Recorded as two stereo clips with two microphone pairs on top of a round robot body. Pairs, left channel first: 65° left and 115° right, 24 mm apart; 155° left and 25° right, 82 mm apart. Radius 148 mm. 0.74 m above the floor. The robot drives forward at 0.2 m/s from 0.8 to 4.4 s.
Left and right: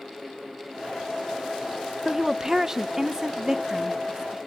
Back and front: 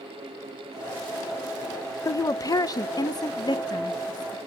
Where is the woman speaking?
170° left, 0.5 m; by 4.4 s 175° left, 0.9 m.